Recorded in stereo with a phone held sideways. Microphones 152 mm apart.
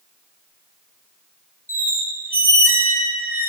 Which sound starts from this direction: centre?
A squeak, at 1.7 s.